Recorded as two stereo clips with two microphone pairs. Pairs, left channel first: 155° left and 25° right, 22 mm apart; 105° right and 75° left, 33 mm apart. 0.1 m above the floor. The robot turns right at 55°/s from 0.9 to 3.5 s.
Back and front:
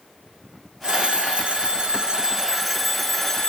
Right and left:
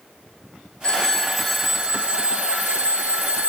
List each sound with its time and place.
0.8 s a phone ringing: 50° right, 1.6 m; by 3.5 s 95° left, 1.6 m